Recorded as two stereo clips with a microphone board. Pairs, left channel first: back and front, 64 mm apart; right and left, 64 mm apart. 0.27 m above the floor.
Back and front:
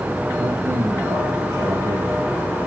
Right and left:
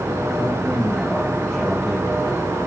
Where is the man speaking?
10° right, 7.5 m.